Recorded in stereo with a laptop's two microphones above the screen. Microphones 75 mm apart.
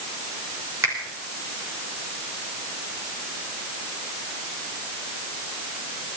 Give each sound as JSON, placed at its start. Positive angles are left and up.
{"t": 0.8, "sound": "a finger snap", "side_deg": -35, "distance_m": 4.0}